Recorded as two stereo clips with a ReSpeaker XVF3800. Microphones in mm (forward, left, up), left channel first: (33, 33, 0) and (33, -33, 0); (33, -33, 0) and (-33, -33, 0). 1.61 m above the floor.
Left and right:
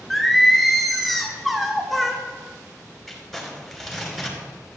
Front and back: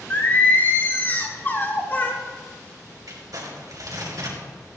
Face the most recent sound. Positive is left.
turn(degrees=180)